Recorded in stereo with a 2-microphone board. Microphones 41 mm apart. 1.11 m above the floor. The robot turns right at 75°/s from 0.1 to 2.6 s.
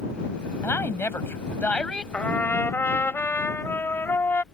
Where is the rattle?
I don't hear a rattle.